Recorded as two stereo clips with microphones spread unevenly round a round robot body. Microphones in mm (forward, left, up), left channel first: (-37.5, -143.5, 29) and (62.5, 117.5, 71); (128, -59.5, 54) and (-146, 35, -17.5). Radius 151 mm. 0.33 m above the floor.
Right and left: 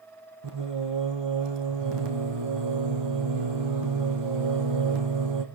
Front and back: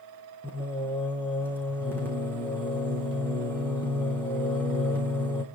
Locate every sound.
0.4 s singing: 65° left, 4 m